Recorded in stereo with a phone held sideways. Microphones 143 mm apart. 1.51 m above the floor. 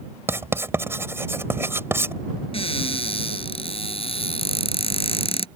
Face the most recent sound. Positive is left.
turn(degrees=40)  # may be behind; listen again after turning